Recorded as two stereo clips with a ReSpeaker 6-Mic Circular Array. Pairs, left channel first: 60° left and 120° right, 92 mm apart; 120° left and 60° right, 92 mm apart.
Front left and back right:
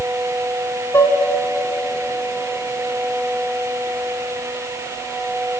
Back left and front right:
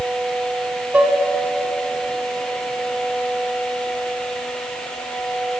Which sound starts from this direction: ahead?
Dishes clattering, at 0.9 s.